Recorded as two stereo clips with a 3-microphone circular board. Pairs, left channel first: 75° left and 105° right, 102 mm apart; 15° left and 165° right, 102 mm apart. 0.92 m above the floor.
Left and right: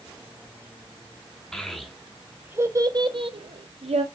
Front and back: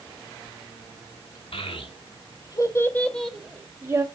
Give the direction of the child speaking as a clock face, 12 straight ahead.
12 o'clock.